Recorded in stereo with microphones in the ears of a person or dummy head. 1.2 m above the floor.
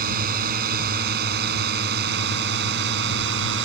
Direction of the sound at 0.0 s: 50° right (ahead or behind).